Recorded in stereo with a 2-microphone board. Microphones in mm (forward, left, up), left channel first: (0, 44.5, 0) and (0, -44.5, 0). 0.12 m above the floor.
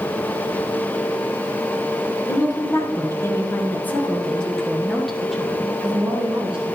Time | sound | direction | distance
2.3 | a woman speaking | 40° left (ahead or behind) | 1.6 m